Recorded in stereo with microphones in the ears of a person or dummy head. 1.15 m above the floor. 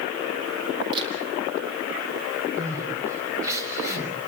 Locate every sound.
0.9 s a camera shutter: 30° right (ahead or behind), 6.5 m
2.6 s crying: 15° right (ahead or behind), 5.5 m